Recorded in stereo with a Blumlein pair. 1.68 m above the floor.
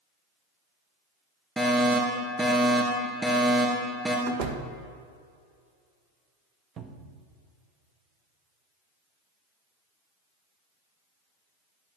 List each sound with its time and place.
1.6 s a fire alarm: 10° right, 3 m
4.3 s a door slam: 40° right, 1.4 m
6.8 s a cupboard door: 25° right, 1.2 m